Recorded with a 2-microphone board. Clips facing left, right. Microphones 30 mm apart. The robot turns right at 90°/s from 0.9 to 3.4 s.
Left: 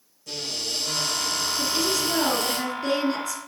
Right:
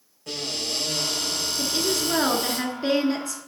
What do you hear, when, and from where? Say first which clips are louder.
0.3 s a cupboard door: right 1 dB; 65° right, 4 m; by 2.6 s 90° left, 4 m
1.6 s a woman speaking: even; 150° right, 1.3 m; by 3.5 s 15° left, 1.3 m